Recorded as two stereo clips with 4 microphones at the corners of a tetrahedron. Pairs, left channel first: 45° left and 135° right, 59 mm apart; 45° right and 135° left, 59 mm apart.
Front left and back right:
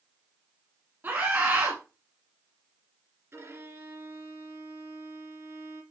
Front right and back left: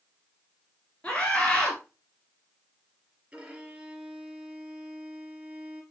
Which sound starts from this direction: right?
A scream, at 1.0 s.